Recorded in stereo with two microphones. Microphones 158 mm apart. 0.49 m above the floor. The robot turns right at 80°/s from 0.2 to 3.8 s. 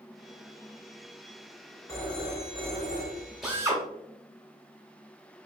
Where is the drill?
Straight behind, 1.0 m; by 3.8 s 150° right, 1.0 m.